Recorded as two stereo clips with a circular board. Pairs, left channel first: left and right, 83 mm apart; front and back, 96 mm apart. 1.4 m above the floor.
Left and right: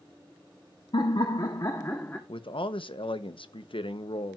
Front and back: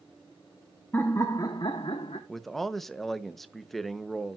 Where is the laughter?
70° left, 1.1 m; by 2.2 s 20° left, 1.3 m.